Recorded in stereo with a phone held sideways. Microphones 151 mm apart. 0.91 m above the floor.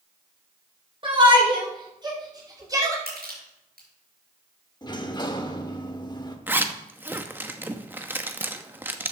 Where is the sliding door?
30° left (ahead or behind), 1.1 m.